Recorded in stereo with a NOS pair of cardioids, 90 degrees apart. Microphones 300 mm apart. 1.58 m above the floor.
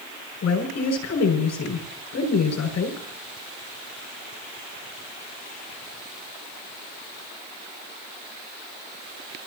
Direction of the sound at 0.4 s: 65° left.